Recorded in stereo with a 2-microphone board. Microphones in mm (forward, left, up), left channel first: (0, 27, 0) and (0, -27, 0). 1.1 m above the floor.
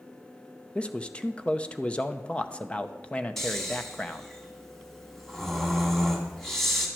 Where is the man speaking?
20° left (ahead or behind), 0.7 m.